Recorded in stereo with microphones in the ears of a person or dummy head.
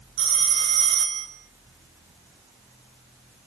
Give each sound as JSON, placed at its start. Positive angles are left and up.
{"t": 0.2, "sound": "a phone ringing", "side_deg": -30, "distance_m": 1.3}